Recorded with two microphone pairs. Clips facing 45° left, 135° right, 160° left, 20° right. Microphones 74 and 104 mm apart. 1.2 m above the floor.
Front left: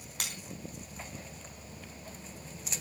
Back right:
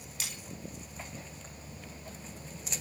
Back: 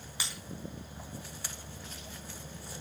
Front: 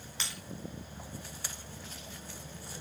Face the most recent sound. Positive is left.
turn(degrees=80)